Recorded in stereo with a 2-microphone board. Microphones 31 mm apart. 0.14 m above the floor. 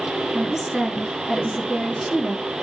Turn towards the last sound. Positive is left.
turn(degrees=-15)  # may be behind; listen again after turning